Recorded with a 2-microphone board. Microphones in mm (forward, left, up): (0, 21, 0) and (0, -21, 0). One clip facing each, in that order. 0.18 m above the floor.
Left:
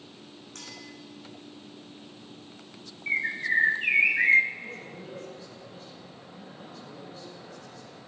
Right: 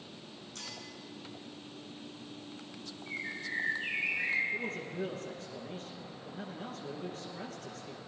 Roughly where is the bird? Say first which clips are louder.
Left 12 dB; left.